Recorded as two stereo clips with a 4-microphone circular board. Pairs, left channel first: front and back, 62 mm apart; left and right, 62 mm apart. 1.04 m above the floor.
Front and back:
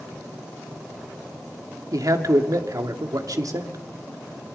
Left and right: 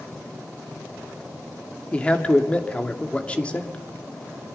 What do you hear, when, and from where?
1.9 s a man speaking: 160° left, 2.5 m